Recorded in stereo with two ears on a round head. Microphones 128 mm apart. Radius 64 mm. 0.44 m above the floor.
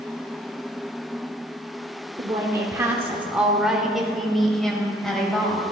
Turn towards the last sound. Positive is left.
turn(degrees=5)  # may be behind; listen again after turning